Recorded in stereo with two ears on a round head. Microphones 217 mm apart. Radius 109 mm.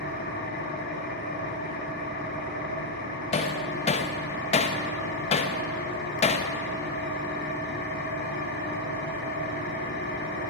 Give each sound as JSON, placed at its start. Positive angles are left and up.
{"t": 0.0, "sound": "an engine running", "side_deg": 40, "distance_m": 2.0}
{"t": 3.3, "sound": "hammering", "side_deg": 25, "distance_m": 0.7}